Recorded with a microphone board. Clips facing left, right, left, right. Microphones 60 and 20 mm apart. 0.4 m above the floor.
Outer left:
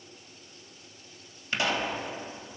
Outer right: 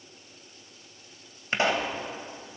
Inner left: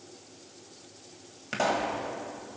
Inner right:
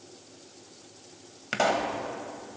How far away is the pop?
About 1.5 m.